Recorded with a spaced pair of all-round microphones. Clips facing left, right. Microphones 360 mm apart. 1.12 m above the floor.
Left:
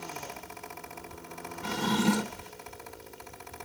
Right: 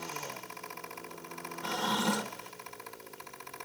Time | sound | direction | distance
0.0 | a fan | 60° left (ahead or behind) | ?
1.6 | a drawer | 35° left (ahead or behind) | ?